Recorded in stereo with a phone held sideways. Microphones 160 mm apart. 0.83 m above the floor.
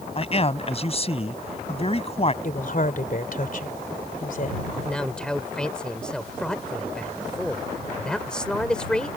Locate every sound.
0.1 s a man speaking: 40° left (ahead or behind)
2.4 s a woman speaking: 60° left (ahead or behind)
4.7 s a man speaking: 5° left (ahead or behind)